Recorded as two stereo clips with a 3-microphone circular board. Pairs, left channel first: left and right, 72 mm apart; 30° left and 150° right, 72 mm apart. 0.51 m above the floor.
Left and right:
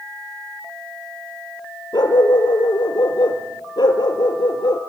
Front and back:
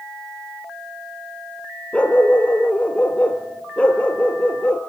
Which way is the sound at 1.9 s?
105° left.